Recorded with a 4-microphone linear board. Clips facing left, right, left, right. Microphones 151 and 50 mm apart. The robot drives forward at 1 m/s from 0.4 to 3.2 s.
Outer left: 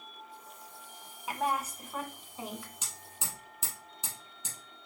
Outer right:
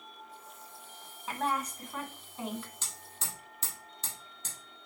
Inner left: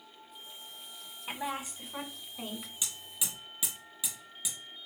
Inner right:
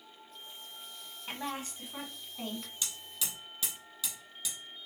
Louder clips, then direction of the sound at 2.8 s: Even, even; 10° left (ahead or behind).